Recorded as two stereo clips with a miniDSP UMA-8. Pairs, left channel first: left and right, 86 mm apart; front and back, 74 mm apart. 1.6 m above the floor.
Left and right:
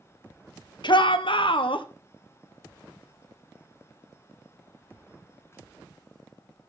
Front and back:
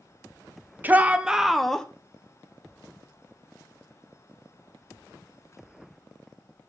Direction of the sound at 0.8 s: 115° left.